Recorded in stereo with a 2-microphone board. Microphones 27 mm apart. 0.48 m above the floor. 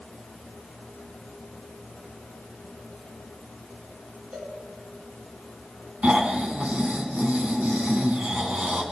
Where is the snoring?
50° right (ahead or behind), 4.5 m.